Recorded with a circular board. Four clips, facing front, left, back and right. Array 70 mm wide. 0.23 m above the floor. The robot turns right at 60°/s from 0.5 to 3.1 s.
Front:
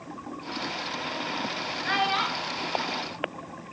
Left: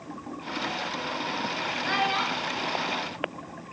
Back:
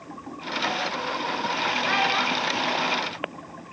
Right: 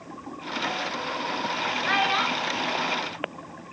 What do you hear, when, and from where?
1.9 s a child speaking: 90° right, 0.5 m; by 2.7 s 40° right, 0.5 m